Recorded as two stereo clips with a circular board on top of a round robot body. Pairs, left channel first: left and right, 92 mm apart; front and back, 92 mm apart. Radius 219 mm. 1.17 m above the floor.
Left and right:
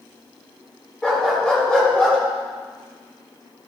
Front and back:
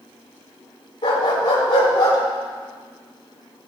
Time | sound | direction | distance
1.0 | a dog barking | 10° left | 3 m